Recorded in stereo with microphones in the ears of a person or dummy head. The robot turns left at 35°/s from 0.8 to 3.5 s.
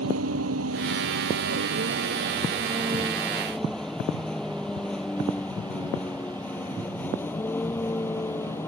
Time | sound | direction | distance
0.0 | a vehicle | 80° right | ?